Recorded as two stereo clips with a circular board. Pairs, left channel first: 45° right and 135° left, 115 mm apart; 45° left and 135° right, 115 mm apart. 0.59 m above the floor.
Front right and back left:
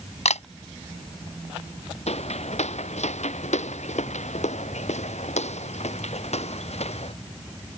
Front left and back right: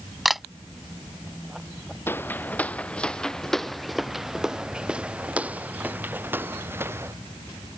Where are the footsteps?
25° right; by 7.1 s 65° right.